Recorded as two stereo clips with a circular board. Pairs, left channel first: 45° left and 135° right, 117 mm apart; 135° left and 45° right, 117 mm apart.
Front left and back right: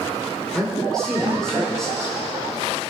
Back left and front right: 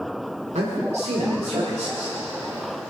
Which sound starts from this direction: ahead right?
A man speaking, at 0.6 s.